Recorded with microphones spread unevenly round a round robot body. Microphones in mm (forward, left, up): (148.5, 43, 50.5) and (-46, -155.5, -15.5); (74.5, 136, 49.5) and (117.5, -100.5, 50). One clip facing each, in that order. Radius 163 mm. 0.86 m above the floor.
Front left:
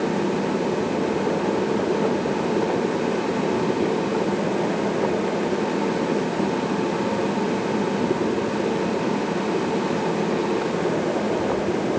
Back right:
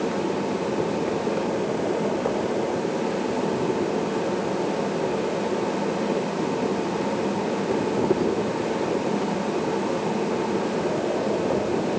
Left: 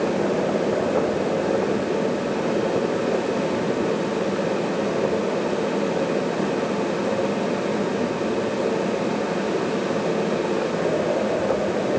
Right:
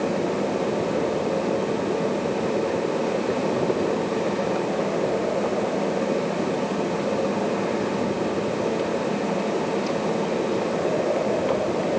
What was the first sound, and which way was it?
Only background noise.